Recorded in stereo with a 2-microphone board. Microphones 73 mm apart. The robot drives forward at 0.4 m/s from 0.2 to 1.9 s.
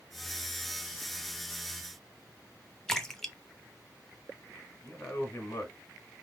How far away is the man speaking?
About 2 m.